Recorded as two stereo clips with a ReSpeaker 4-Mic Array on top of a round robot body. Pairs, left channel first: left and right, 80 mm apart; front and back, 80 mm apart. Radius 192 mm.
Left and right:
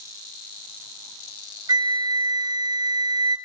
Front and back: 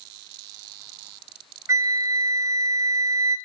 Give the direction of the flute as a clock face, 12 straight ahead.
4 o'clock.